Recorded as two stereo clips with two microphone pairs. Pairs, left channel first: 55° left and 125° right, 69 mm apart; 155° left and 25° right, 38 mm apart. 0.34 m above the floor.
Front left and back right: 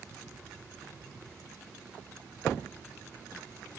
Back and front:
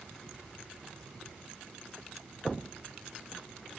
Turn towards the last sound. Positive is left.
No sound to turn to.